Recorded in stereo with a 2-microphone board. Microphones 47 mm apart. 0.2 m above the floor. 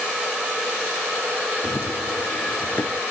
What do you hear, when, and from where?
1.6 s running footsteps: 70° left (ahead or behind); by 3.0 s 75° left (ahead or behind)